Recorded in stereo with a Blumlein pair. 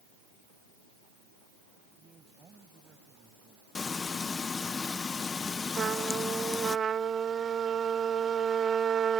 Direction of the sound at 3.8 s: 15° left.